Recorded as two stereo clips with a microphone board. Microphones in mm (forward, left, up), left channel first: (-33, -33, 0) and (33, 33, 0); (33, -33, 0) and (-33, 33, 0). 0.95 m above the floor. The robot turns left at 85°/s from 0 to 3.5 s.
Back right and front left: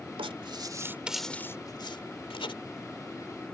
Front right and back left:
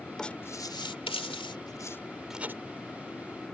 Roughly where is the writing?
Ahead left.